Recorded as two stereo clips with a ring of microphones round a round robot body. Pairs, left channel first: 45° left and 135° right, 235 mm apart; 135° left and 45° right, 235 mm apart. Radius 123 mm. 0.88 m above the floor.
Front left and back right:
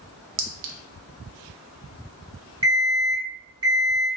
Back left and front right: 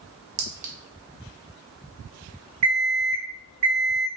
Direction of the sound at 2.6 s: 65° right.